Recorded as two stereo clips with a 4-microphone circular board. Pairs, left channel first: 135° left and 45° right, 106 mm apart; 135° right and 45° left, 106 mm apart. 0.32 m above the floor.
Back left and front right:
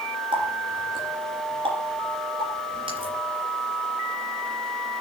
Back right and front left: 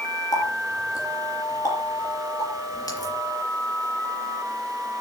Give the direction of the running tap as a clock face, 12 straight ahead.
3 o'clock.